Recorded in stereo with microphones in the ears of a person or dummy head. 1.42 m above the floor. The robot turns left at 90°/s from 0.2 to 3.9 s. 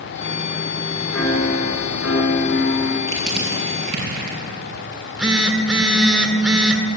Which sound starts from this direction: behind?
A piano, at 1.1 s.